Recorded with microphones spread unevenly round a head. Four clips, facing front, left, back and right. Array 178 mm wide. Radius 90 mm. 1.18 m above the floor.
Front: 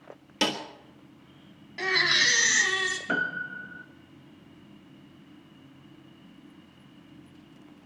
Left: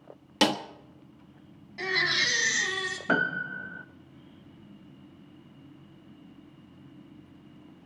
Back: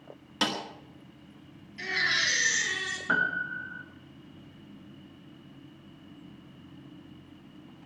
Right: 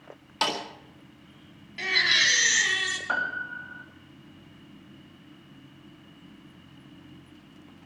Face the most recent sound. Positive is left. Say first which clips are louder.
# left 4 dB, back 4 dB
turn(degrees=80)